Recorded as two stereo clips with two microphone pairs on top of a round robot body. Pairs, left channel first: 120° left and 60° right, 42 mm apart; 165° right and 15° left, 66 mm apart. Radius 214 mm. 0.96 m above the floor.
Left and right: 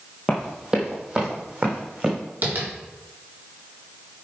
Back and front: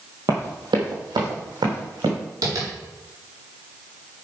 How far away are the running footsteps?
About 1.2 m.